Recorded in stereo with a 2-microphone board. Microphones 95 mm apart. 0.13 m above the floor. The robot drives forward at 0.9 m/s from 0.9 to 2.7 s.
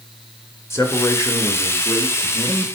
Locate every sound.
0.7 s a man speaking: 30° left (ahead or behind), 1.6 m; by 2.6 s 20° left (ahead or behind), 2 m